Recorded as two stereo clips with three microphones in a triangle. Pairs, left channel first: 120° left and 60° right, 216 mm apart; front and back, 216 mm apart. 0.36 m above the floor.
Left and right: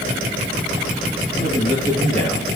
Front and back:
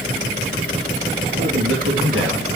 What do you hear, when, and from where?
1.3 s a man speaking: straight behind, 5.5 m; by 2.5 s 175° left, 4.5 m